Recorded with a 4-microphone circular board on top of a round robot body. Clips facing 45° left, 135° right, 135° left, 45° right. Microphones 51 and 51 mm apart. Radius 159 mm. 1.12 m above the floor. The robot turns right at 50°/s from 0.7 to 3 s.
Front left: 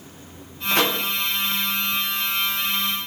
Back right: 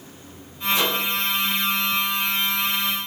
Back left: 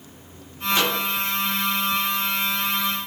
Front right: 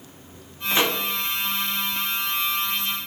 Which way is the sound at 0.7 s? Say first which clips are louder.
Front left 1 dB, even; 20° left.